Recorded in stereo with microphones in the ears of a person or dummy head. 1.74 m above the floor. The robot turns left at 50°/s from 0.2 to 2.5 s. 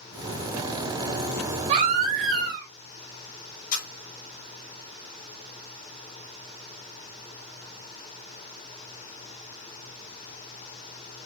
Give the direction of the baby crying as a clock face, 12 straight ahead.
2 o'clock.